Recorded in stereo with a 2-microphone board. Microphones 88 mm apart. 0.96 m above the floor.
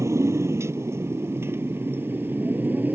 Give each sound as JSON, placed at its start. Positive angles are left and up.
{"t": 0.0, "sound": "a motorcycle", "side_deg": -35}